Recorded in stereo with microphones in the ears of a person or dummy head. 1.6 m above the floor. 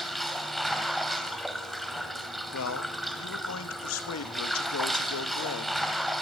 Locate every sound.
0.0 s running water: centre (ahead or behind), 1.8 m
2.5 s a man speaking: 85° left, 2.5 m